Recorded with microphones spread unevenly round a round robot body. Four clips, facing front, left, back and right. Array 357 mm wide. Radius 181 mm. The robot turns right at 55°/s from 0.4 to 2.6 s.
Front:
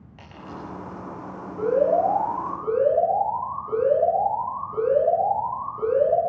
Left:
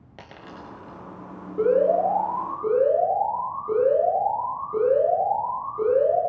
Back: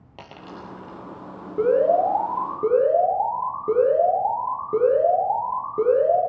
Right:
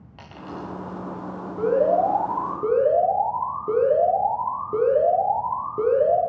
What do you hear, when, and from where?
0.2 s a dropped coin: 145° left, 3 m; by 1.0 s 175° left, 3 m
1.6 s an alarm: 165° left, 9 m; by 6.2 s 140° right, 9 m